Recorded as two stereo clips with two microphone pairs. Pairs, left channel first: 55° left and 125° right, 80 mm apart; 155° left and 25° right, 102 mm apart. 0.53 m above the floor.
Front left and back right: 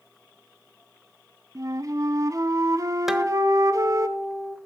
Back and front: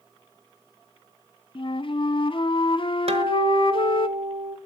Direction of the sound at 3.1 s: 40° right.